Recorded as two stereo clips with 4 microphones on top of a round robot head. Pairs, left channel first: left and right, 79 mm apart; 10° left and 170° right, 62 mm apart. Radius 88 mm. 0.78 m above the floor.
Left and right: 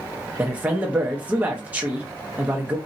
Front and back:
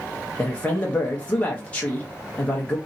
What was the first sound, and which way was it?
A man speaking, 40° right.